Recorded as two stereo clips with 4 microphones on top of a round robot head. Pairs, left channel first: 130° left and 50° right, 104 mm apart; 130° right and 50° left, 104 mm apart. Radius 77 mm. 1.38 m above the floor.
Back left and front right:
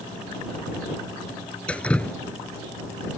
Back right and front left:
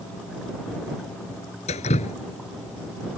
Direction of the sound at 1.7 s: 150° right.